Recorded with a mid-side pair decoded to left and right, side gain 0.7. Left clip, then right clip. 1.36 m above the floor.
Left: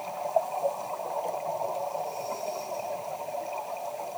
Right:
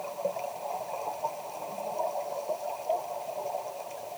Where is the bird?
No bird in this recording.